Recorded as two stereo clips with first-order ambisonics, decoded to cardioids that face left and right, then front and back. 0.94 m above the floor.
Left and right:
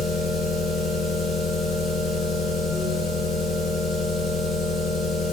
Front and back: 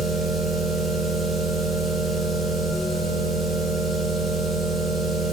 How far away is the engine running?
About 3.5 m.